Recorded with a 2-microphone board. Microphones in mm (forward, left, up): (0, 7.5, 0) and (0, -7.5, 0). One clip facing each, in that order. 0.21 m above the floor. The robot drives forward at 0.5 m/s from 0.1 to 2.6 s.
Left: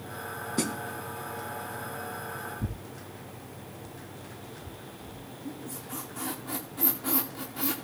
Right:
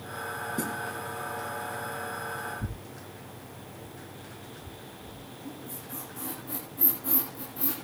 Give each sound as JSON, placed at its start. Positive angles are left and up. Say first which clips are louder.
{"t": 0.6, "sound": "a snare drum", "louder": "left 4 dB", "side_deg": 50, "distance_m": 1.1}
{"t": 2.6, "sound": "tearing paper", "louder": "left 1 dB", "side_deg": 50, "distance_m": 2.5}
{"t": 5.5, "sound": "a squeak", "louder": "left 3 dB", "side_deg": 45, "distance_m": 7.5}